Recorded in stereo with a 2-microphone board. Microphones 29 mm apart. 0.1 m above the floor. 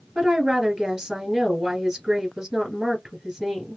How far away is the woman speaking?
About 2 m.